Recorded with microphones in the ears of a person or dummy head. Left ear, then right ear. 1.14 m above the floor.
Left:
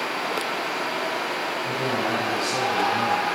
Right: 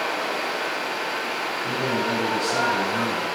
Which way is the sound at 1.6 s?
20° right (ahead or behind).